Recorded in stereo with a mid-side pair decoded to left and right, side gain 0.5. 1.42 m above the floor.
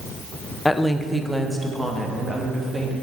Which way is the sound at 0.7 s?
15° left.